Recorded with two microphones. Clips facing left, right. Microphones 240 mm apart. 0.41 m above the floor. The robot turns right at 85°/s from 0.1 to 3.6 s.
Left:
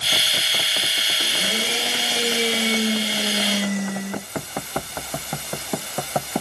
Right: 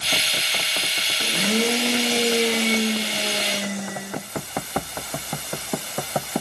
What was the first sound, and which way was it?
A blender, 115° right.